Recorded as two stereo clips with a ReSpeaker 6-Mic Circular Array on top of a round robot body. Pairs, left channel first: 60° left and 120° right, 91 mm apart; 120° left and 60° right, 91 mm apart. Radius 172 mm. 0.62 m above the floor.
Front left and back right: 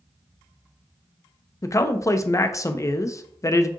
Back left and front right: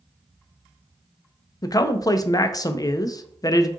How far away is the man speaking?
About 0.6 m.